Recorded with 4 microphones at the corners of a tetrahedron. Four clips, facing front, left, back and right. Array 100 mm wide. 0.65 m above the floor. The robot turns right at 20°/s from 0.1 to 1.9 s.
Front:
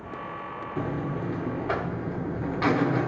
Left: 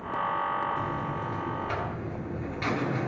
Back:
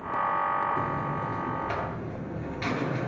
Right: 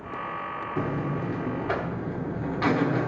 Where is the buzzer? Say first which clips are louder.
Right 2 dB, back 1 dB; 65° right, 1.4 m; by 3.1 s 40° right, 1.4 m.